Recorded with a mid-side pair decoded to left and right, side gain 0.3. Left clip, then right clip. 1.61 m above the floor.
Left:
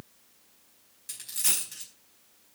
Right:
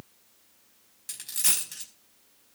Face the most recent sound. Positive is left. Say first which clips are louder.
# right 2 dB
turn(degrees=-45)